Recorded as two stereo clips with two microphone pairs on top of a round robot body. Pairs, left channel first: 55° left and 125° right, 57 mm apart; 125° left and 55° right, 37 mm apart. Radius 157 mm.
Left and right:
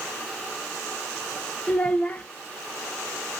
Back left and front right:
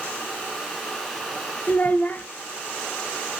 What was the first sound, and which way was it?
A child speaking, 95° left.